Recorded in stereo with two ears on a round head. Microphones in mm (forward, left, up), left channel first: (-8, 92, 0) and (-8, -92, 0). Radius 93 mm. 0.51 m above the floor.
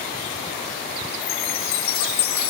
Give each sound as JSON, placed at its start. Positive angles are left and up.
{"t": 1.2, "sound": "a chime", "side_deg": 50, "distance_m": 4.0}